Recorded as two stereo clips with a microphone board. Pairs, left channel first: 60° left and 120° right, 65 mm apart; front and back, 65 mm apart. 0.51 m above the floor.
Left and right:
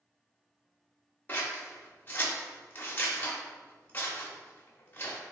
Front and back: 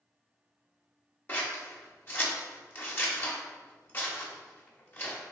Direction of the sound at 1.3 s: 25° left.